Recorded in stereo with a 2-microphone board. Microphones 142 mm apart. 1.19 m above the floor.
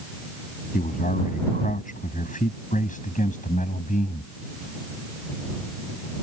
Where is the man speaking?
70° left (ahead or behind); by 4.3 s 60° left (ahead or behind).